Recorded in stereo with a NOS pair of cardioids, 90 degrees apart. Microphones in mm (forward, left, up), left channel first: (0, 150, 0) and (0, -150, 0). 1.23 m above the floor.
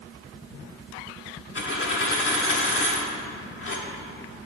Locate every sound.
1.6 s a dropped coin: 45° left, 1.7 m